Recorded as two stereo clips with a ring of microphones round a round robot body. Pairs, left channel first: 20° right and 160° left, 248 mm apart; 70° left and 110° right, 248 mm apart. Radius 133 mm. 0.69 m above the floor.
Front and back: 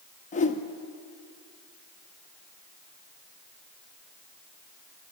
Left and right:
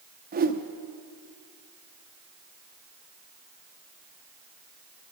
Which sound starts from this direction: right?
A whoosh, at 0.3 s.